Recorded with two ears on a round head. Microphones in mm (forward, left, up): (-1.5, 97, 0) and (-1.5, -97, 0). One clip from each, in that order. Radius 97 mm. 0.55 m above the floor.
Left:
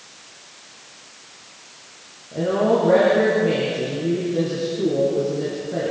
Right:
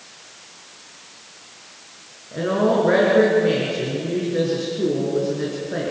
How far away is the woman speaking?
About 6 m.